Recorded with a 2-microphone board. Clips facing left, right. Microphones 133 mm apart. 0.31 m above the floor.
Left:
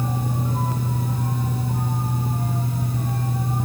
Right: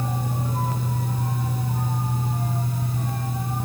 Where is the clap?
I don't hear a clap.